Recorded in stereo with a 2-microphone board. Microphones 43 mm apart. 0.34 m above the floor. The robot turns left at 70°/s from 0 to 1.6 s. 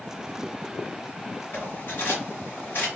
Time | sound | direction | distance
1.5 | cutlery clinking | 60° left (ahead or behind) | 1.8 m